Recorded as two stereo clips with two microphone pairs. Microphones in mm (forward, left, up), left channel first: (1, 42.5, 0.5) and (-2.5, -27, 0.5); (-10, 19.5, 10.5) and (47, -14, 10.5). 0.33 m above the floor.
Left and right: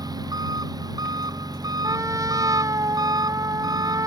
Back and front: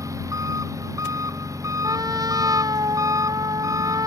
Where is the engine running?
65° right.